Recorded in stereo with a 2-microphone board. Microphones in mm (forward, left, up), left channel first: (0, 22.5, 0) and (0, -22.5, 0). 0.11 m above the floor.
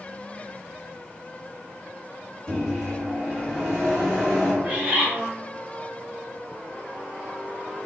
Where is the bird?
25° right (ahead or behind), 1.1 m.